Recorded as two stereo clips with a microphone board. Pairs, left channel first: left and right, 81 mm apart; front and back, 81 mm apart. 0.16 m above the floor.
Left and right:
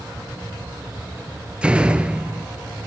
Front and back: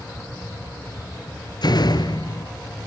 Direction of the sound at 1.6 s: 15° right.